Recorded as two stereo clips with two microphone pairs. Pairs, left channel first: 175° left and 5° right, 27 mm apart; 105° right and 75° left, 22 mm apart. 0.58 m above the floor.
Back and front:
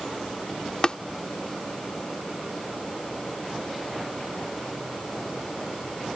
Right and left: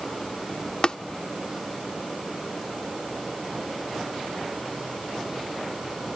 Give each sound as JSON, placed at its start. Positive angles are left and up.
{"t": 0.8, "sound": "tapping", "azimuth_deg": -135}